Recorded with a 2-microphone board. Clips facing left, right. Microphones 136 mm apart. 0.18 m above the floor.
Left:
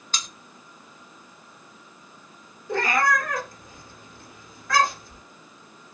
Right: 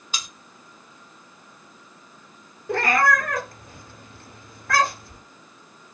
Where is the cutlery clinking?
10° right (ahead or behind), 0.6 m.